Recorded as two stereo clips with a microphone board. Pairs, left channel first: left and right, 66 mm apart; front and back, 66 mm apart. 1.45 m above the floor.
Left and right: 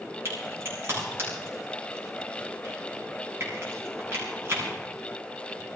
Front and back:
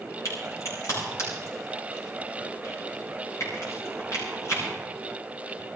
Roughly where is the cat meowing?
I don't hear a cat meowing.